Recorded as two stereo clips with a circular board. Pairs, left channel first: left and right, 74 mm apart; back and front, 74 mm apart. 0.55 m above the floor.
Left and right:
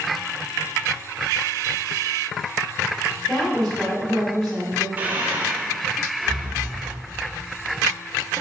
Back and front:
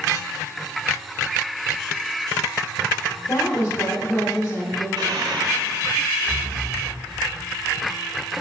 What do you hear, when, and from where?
3.3 s a woman speaking: 140° left, 1.1 m
5.0 s breathing: 15° right, 0.6 m